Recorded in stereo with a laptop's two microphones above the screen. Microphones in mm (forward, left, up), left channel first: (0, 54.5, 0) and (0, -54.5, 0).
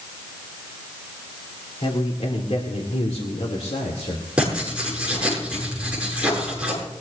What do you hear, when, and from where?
1.8 s a man speaking: 65° left (ahead or behind), 2.5 m; by 4.2 s 75° left (ahead or behind), 3 m
4.4 s writing: 10° right (ahead or behind), 7 m